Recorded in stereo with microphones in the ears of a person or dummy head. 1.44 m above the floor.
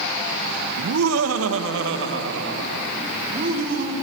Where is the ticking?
No ticking in this recording.